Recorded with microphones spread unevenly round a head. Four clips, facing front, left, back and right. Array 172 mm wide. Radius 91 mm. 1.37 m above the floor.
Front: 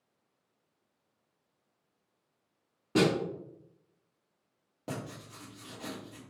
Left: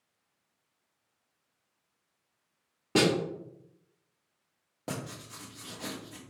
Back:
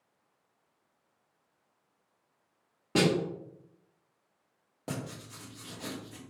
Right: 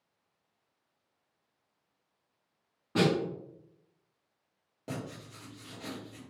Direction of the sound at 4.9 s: 150° left.